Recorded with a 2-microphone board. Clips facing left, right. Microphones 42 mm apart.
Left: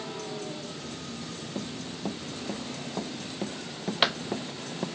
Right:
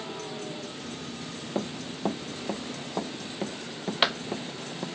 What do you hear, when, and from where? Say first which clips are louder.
1.6 s running footsteps: right 5 dB; 35° right (ahead or behind); by 4.9 s 10° left (ahead or behind)